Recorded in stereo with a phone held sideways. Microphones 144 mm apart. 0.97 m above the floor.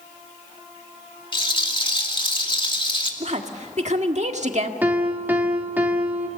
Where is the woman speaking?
60° right (ahead or behind), 1.6 m.